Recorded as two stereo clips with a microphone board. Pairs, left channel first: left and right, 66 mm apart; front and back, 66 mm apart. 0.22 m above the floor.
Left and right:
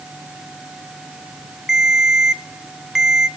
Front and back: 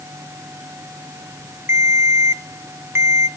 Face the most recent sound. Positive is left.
turn(degrees=-170)